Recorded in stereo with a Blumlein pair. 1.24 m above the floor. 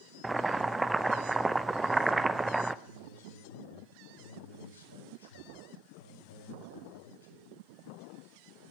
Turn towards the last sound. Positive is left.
turn(degrees=70)